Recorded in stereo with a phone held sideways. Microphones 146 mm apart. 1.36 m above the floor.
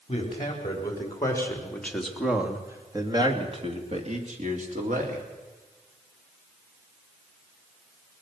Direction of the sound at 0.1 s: 35° left (ahead or behind).